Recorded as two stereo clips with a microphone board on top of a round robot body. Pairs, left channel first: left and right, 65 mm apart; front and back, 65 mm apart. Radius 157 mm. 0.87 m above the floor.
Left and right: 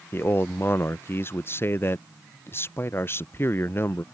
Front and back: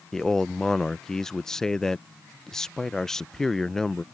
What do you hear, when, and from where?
0.1 s a man speaking: 80° left